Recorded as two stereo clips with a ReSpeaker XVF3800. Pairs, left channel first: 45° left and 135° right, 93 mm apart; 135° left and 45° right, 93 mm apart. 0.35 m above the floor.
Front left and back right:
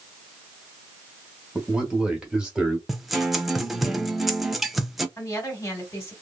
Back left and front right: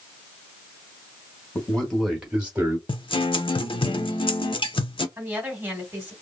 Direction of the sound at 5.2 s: 10° left.